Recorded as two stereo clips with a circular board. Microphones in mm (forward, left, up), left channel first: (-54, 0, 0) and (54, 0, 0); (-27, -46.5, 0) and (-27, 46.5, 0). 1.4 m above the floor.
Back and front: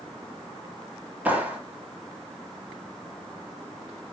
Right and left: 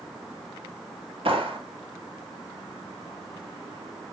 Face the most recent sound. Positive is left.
turn(degrees=75)